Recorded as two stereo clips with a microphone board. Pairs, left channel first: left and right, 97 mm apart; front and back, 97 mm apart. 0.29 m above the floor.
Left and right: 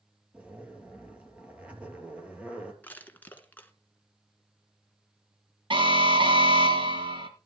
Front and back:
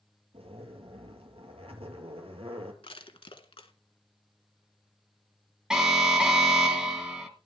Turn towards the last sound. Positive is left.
turn(degrees=-100)